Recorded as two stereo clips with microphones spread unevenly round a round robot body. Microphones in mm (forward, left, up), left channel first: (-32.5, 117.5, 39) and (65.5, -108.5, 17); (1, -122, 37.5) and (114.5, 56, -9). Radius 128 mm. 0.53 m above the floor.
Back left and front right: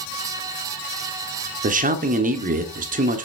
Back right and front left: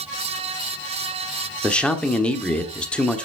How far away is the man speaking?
About 1.3 m.